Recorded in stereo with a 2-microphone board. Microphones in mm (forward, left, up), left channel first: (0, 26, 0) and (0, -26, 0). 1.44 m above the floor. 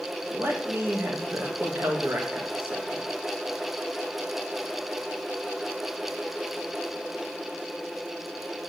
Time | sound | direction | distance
0.3 | a man speaking | 45° right (ahead or behind) | 2.5 m